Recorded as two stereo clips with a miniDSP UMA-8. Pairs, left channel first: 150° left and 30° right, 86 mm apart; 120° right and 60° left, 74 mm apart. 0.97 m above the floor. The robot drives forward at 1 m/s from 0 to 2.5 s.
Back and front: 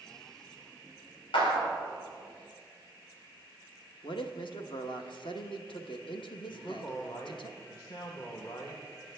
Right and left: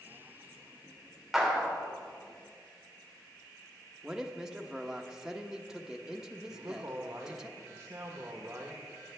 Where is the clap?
145° left, 3 m; by 1.7 s 150° left, 3.5 m.